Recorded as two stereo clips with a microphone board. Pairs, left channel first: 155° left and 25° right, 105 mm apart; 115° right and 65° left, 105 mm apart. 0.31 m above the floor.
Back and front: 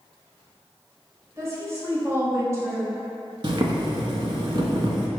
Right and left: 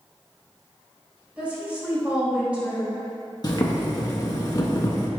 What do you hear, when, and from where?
1.4 s a woman speaking: straight ahead, 1.0 m
3.4 s boiling: 60° right, 0.5 m